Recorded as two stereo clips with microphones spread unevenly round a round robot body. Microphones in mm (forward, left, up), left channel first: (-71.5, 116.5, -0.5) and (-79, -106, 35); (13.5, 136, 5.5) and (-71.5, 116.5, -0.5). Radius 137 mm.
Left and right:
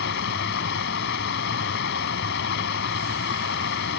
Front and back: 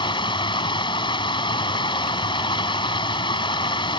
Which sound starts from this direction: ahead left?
Running water, at 0.0 s.